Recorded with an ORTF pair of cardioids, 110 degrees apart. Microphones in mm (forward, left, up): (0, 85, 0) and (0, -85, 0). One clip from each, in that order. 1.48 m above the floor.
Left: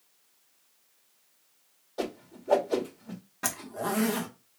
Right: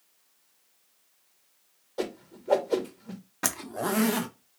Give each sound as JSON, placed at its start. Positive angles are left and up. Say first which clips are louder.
{"t": 2.0, "sound": "a whoosh", "louder": "right 1 dB", "azimuth_deg": -10, "distance_m": 1.2}
{"t": 3.4, "sound": "a zipper", "louder": "right 2 dB", "azimuth_deg": -20, "distance_m": 0.7}